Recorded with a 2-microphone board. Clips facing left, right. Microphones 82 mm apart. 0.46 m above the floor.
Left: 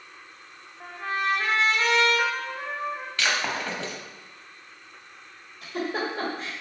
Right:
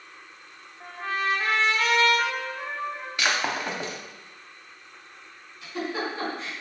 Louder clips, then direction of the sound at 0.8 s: Even; 20° left (ahead or behind).